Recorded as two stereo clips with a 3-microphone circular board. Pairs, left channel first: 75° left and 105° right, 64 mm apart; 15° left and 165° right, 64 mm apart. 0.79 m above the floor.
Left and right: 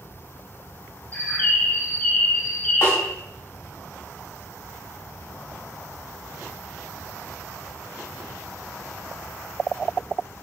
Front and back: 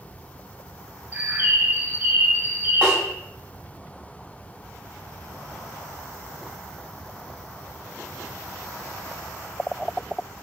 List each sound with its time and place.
1.1 s a bird: 135° left, 0.5 m
2.8 s a snare drum: 130° left, 1.9 m